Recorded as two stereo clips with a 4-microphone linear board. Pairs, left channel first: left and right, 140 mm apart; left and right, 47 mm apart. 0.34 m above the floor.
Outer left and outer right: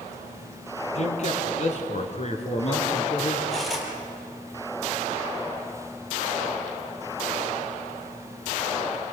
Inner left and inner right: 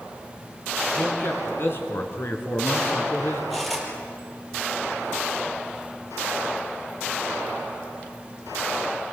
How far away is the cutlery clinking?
About 5 m.